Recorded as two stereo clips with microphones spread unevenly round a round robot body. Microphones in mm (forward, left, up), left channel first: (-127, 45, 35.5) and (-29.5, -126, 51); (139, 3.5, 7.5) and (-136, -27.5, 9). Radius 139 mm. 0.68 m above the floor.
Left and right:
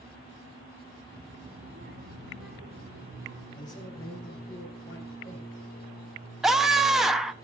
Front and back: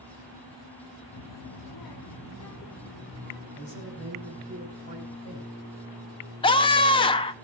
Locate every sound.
1.1 s a child speaking: 30° left, 0.8 m; by 3.5 s 45° right, 1.9 m
3.6 s a man speaking: 60° left, 4.5 m
6.4 s a scream: 40° left, 0.6 m